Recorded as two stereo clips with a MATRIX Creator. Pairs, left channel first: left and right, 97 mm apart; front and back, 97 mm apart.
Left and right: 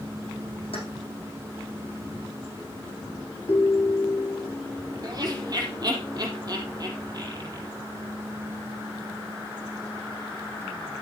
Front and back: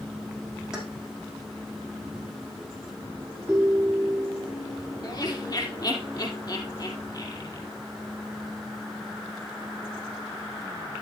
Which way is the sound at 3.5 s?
100° left.